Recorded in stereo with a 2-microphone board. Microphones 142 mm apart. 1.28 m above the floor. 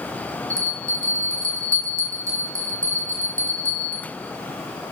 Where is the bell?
20° right (ahead or behind), 0.6 m.